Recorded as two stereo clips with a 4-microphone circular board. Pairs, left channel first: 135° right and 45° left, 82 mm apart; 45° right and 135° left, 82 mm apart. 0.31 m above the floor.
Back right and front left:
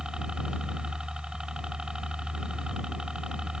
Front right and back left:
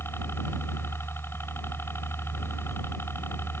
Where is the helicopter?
30° right.